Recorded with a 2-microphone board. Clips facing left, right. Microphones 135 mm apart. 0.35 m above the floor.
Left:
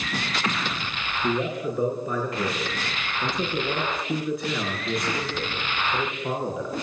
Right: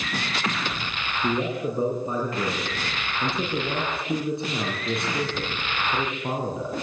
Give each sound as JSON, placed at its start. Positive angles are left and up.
{"t": 1.2, "sound": "a man speaking", "side_deg": -25, "distance_m": 5.0}